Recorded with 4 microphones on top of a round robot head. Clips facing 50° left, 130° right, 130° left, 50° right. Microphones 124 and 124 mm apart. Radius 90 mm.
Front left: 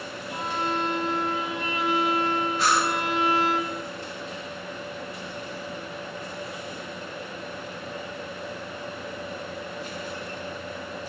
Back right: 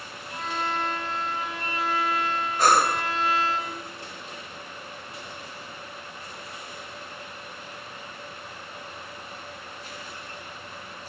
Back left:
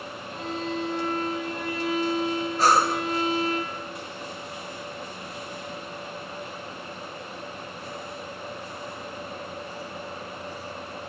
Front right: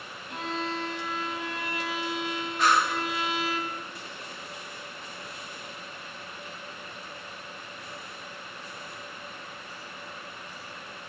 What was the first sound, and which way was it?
A violin, 25° right.